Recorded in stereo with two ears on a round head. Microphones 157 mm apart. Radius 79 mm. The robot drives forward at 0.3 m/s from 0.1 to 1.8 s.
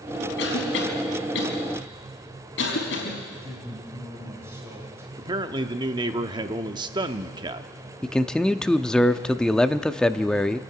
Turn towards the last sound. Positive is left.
turn(degrees=5)  # may be behind; listen again after turning